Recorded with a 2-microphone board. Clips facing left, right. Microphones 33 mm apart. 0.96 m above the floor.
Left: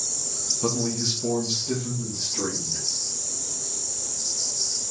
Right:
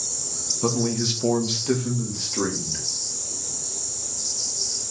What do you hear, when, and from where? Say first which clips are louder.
0.6 s a man speaking: right 3 dB; 10° right (ahead or behind), 0.9 m; by 2.9 s 75° right (ahead or behind), 1.7 m